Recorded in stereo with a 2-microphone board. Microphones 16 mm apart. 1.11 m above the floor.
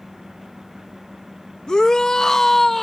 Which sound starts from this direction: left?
A shout, at 1.7 s.